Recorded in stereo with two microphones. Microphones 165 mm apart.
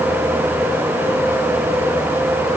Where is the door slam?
I don't hear a door slam.